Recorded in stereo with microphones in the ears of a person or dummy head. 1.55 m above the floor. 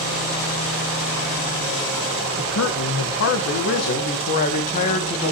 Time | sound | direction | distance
2.4 | a man speaking | 80° left | 1.7 m